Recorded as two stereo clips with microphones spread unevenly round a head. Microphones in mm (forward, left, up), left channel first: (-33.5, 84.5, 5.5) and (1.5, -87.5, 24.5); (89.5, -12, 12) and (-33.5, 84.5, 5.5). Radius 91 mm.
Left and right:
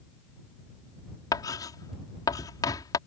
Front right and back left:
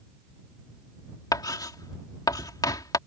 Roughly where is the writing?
Ahead left.